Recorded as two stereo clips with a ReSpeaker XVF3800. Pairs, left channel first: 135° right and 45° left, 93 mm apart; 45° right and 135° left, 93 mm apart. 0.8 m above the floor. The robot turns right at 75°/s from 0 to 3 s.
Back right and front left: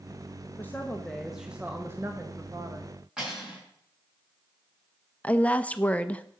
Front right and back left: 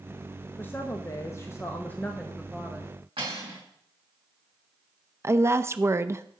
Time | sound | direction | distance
0.6 | a woman speaking | 95° right | 1.0 m
3.2 | cutlery clinking | 130° left | 6 m
5.2 | a woman speaking | 165° left | 0.6 m